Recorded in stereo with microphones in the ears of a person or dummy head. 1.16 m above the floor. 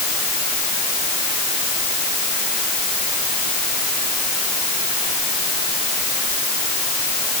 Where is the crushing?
No crushing in this recording.